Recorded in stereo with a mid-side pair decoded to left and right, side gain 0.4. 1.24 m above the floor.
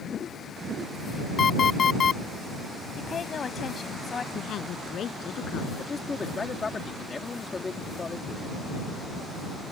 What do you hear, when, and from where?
1.4 s an alarm clock: 50° left
3.0 s a woman speaking: 45° left
4.3 s a woman speaking: 65° left
5.8 s a man speaking: 35° left